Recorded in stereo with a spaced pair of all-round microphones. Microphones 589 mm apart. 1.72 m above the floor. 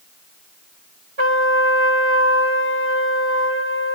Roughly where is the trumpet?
Right.